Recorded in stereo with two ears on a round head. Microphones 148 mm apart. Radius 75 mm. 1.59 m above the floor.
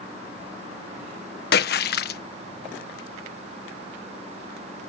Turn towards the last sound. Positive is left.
turn(degrees=70)  # may be behind; listen again after turning